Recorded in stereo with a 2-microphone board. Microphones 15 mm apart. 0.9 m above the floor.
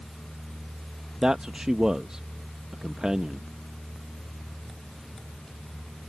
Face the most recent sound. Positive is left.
turn(degrees=-60)  # may be behind; listen again after turning